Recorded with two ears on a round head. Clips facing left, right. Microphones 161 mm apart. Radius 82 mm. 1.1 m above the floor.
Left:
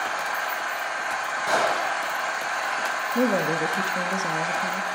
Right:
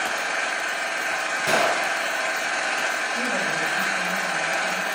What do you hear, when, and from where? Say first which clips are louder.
0.0 s an engine running: right 1 dB; 25° right (ahead or behind), 1.3 m
1.5 s a gunshot: right 1 dB; 25° right (ahead or behind), 3.5 m
3.1 s a woman speaking: left 9 dB; 60° left (ahead or behind), 1.4 m